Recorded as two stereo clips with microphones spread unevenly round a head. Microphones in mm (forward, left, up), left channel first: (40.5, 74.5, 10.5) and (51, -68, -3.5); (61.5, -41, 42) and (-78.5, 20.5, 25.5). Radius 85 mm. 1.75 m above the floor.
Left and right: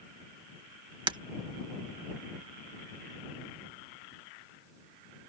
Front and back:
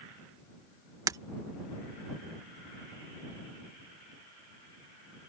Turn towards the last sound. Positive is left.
turn(degrees=-135)